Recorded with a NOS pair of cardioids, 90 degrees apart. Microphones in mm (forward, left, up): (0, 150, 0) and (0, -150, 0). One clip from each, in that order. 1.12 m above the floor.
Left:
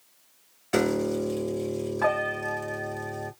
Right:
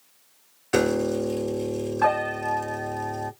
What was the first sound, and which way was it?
A piano, straight ahead.